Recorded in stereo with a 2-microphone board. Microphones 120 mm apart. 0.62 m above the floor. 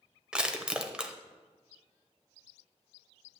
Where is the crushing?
10° right (ahead or behind), 0.6 m.